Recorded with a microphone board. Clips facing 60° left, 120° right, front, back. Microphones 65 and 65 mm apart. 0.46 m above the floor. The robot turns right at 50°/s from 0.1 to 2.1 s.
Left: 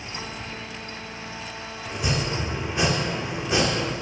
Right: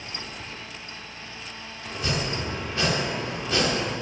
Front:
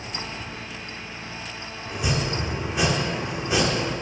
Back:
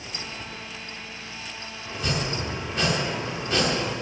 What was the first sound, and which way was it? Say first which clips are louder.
Chopping: left 1 dB, front 2 dB; 35° left.